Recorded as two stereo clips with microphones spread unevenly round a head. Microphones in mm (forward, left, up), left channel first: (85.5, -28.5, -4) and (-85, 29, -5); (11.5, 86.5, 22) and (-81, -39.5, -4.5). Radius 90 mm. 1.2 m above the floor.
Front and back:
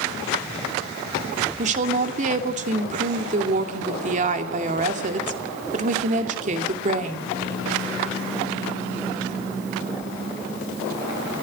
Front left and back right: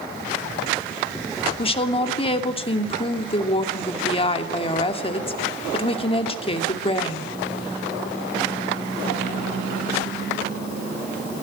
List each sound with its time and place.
1.6 s a woman speaking: 110° left, 2.5 m